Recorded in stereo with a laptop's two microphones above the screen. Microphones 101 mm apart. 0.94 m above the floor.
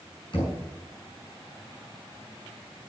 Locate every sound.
0.3 s knocking: 50° left (ahead or behind), 7 m